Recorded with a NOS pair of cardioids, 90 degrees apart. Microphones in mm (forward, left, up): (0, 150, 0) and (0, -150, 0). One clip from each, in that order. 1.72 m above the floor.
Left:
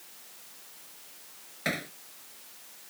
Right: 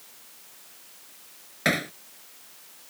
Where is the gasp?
No gasp in this recording.